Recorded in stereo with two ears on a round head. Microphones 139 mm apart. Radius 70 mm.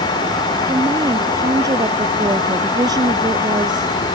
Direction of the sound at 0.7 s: 20° right (ahead or behind).